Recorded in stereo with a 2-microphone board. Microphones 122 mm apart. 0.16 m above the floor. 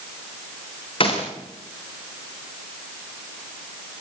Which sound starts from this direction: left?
A gunshot, at 1.0 s.